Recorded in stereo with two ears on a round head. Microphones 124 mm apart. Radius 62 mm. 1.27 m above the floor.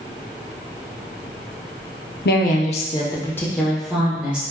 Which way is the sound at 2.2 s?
80° left.